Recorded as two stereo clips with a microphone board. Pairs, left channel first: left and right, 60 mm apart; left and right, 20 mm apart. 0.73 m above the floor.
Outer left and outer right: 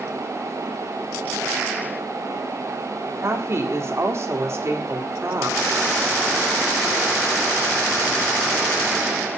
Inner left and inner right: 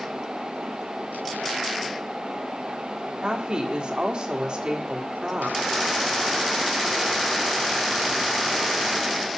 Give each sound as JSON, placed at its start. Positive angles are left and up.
{"t": 3.2, "sound": "a woman speaking", "side_deg": -45, "distance_m": 1.6}